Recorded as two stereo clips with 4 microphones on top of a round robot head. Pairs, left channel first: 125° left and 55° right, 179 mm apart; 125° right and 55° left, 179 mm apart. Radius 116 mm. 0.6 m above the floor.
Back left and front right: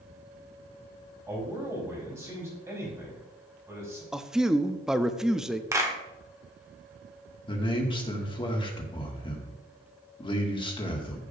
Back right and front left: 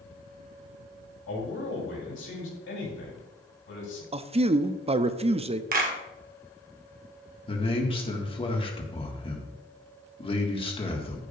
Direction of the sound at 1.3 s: 135° right.